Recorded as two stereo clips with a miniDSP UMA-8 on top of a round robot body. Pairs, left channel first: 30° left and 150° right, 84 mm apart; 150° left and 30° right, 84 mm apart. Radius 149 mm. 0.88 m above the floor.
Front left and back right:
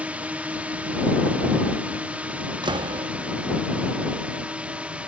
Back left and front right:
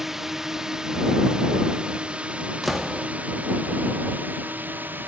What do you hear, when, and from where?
0.0 s a drone: 110° right; by 5.1 s 80° right
2.6 s a door slam: 120° right